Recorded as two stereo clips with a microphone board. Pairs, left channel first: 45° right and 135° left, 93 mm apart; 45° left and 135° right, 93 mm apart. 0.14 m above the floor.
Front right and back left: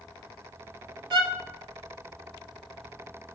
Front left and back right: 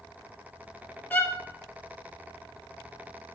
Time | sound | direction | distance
1.1 | a violin | 115° left | 0.7 m